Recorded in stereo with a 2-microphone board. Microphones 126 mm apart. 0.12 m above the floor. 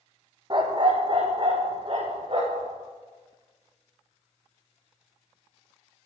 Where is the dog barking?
40° right (ahead or behind), 1.8 m; by 2.7 s 45° right (ahead or behind), 4.5 m.